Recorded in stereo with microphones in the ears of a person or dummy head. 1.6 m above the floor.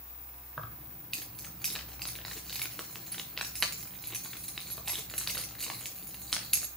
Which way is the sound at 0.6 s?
Centre (ahead or behind).